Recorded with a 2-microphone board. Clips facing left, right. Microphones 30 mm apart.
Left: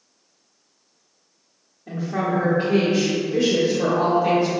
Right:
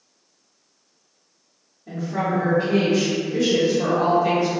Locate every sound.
1.9 s a woman speaking: 20° left (ahead or behind), 0.7 m